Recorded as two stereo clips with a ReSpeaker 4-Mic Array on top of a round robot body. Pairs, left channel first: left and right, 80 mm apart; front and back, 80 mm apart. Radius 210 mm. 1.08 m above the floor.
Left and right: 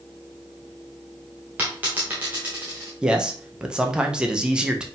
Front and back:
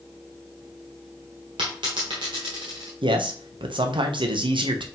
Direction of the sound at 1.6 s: 160° right.